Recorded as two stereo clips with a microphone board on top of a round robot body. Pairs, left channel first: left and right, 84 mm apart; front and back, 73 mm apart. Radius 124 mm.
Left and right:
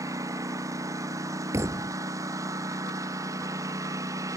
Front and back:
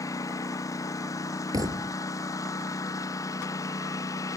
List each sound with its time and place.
0.0 s a lawn mower: 40° right
1.5 s a thud: 145° right